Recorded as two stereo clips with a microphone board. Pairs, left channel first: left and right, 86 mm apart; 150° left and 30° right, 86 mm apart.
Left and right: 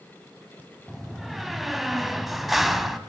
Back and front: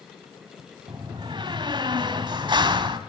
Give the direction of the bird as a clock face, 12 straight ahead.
I don't hear a bird.